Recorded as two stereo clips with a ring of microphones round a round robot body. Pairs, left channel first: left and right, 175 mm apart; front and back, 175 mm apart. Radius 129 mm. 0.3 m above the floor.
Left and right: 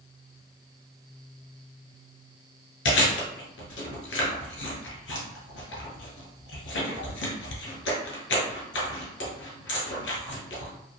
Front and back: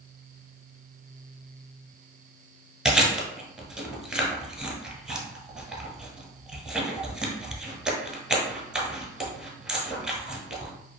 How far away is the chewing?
About 1.1 m.